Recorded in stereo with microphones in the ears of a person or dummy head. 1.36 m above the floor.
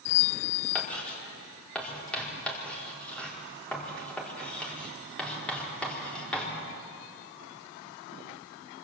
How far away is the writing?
About 4.5 m.